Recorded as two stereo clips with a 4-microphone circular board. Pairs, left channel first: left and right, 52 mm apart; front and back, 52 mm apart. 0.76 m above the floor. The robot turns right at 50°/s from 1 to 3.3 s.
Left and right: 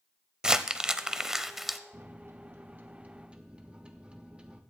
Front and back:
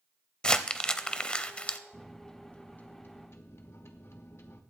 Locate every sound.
0.4 s crumpling: 45° right, 0.5 m; by 1.8 s 5° right, 0.5 m
1.9 s a microwave: 90° right, 0.9 m; by 4.6 s 25° right, 0.9 m